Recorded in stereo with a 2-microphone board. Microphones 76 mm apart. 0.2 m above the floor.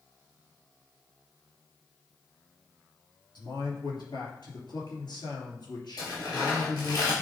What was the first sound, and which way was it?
A man speaking, 70° left (ahead or behind).